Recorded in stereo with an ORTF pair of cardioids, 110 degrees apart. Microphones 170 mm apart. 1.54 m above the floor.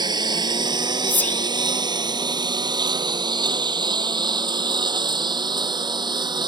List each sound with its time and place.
0.0 s a lawn mower: 25° right
1.1 s whispering: 10° left